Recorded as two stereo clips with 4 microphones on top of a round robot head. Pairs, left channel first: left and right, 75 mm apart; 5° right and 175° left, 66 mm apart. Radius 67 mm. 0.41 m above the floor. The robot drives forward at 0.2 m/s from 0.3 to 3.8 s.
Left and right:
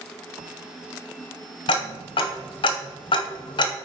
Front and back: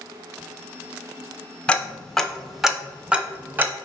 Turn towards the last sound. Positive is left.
turn(degrees=115)